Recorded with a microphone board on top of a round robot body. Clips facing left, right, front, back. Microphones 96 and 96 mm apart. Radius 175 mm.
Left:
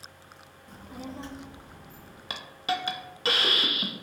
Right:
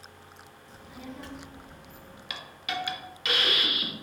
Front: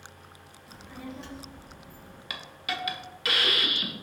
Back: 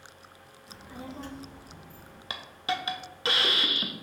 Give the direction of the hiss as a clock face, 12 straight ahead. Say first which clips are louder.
Left 5 dB, back 4 dB; 8 o'clock.